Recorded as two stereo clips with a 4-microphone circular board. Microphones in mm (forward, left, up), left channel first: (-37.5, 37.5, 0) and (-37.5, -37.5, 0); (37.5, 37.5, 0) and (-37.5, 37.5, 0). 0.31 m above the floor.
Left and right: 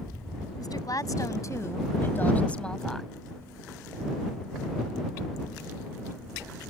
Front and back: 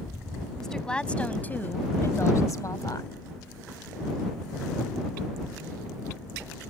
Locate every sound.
0.6 s a woman speaking: 85° left; by 3.1 s straight ahead